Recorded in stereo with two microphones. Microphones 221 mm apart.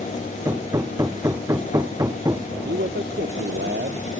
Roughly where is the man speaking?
Right.